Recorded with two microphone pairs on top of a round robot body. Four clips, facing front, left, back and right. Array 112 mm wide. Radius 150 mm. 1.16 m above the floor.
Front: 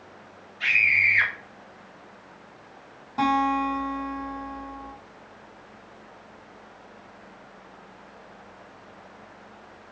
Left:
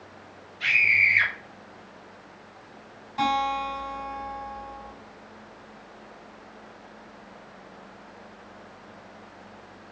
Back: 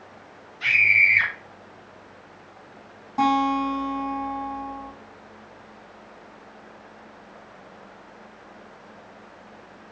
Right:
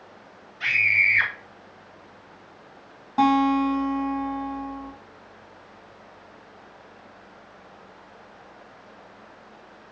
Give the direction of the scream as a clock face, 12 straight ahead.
2 o'clock.